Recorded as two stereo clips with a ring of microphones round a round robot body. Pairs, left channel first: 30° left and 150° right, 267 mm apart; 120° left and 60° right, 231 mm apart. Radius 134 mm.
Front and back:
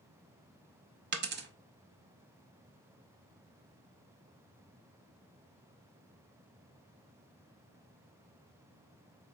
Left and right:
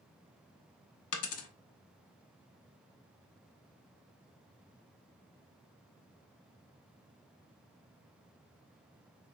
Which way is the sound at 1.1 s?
155° left.